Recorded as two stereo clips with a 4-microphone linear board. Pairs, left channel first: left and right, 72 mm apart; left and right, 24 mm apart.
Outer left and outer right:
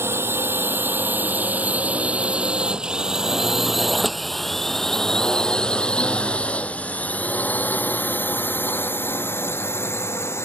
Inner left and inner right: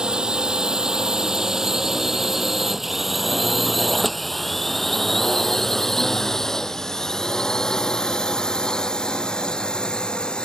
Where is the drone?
35° right (ahead or behind); by 10.4 s 35° left (ahead or behind).